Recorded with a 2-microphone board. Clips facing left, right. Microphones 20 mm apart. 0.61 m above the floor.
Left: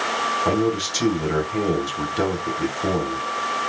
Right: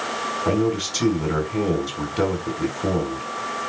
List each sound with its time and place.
0.5 s a man speaking: 5° left (ahead or behind), 4 m